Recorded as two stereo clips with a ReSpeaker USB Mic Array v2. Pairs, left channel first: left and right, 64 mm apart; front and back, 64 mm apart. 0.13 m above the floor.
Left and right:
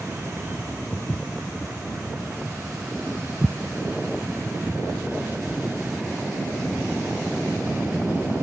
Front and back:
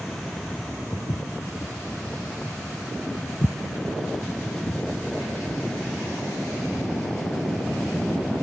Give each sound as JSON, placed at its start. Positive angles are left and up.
{"t": 0.9, "sound": "footsteps", "azimuth_deg": 30}